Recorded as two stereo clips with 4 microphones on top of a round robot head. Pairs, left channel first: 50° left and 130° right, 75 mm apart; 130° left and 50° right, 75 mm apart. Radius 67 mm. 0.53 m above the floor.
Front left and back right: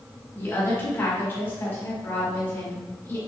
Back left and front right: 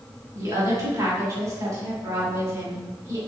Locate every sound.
0.3 s a woman speaking: 5° right, 1.8 m